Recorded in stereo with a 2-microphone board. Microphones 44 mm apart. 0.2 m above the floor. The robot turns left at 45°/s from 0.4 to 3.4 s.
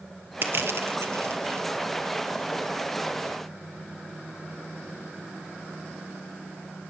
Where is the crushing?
50° right (ahead or behind), 2.5 m; by 1.7 s 70° right (ahead or behind), 2.5 m.